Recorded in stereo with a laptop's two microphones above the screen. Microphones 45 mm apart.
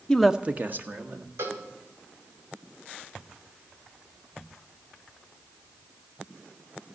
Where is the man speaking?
20° left (ahead or behind), 0.5 m; by 1.3 s 50° right (ahead or behind), 1.9 m.